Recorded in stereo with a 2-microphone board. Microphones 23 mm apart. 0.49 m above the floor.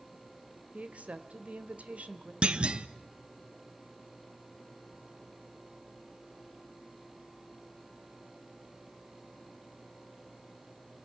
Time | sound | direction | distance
0.7 | a woman speaking | 65° right (ahead or behind) | 1.5 m
2.4 | a clunk | 45° right (ahead or behind) | 0.7 m